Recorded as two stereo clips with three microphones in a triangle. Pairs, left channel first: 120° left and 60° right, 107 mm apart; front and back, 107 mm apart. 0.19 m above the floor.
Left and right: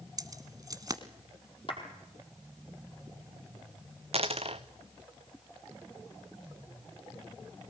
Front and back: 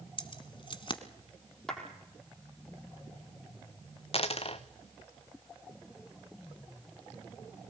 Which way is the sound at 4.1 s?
30° right.